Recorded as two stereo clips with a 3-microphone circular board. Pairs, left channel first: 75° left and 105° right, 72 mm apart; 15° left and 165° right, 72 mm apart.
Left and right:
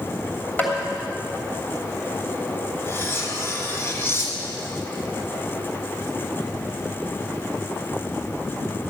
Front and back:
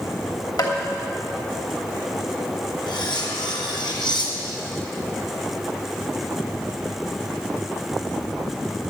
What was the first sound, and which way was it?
Tapping, 10° left.